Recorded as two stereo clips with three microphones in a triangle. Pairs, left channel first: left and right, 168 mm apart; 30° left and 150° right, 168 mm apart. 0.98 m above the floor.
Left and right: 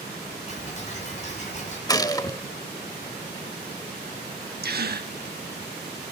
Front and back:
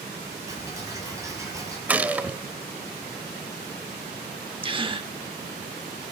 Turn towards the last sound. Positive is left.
turn(degrees=-90)